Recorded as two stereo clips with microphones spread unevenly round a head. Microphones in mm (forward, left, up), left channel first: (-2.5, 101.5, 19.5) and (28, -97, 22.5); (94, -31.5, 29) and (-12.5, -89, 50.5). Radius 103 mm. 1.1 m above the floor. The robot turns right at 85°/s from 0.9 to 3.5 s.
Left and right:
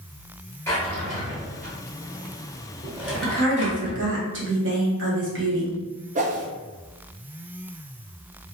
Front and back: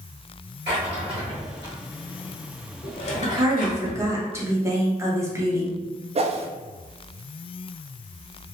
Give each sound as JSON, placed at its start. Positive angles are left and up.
{"t": 0.7, "sound": "a drawer", "azimuth_deg": 175, "distance_m": 1.0}
{"t": 3.2, "sound": "a woman speaking", "azimuth_deg": -105, "distance_m": 1.3}
{"t": 6.2, "sound": "a whoosh", "azimuth_deg": -120, "distance_m": 0.5}